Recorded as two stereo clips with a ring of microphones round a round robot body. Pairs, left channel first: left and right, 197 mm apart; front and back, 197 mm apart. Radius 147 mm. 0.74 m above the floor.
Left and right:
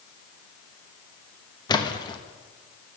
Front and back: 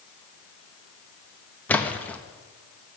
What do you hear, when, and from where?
1.7 s a splash: 70° left, 1.0 m